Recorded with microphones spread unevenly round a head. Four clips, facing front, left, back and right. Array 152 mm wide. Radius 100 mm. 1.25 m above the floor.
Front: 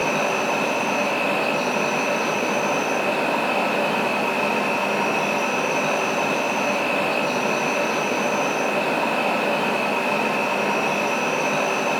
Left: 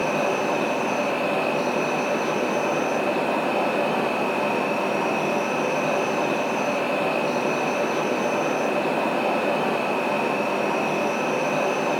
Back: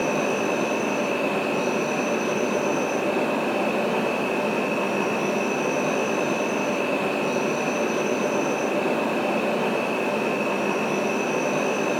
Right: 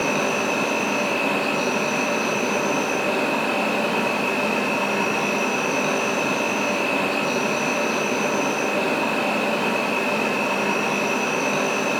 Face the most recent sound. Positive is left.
turn(degrees=25)